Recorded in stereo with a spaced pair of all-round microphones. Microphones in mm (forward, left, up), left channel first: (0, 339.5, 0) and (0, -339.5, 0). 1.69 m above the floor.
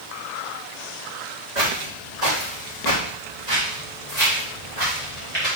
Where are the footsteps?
65° right (ahead or behind), 4.5 m; by 5.5 s 55° right (ahead or behind), 5 m.